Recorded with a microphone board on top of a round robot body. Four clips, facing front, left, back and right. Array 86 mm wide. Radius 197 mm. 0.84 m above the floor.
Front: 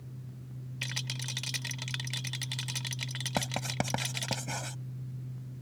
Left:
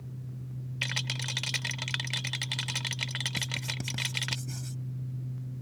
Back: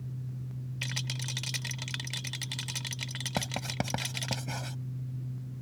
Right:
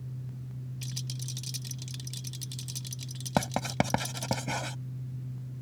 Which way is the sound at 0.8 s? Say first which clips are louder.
Left 7 dB, back 1 dB; 90° left.